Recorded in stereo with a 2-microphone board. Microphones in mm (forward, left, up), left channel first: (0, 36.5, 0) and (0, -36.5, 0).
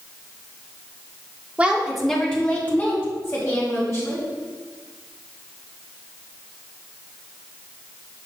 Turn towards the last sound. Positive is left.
turn(degrees=35)  # may be behind; listen again after turning